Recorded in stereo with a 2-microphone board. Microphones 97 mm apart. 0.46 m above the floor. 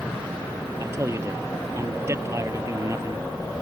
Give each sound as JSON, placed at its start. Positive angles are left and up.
{"t": 0.8, "sound": "a man speaking", "side_deg": -30}